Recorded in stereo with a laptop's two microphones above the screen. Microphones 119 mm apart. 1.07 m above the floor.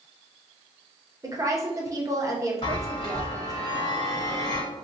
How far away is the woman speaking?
About 0.7 m.